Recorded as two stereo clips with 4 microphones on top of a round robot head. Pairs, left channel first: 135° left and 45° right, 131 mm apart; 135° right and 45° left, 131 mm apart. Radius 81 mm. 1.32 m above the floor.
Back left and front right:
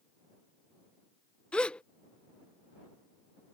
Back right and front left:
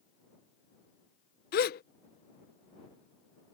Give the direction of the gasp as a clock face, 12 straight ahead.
5 o'clock.